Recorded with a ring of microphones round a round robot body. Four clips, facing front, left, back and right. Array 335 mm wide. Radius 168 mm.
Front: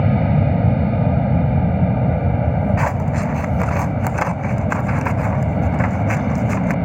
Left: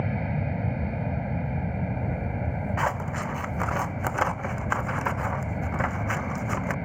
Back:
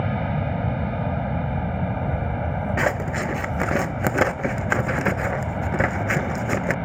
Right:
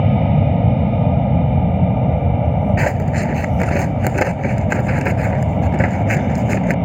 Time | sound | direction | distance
0.0 | an aircraft | 55° right | ?
2.8 | scissors | 130° right | ?